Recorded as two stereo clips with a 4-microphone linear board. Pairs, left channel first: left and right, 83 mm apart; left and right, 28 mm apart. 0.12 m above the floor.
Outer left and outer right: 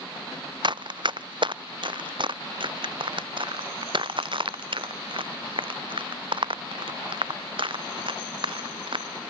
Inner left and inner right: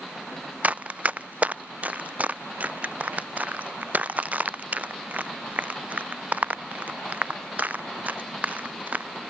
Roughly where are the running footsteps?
Right.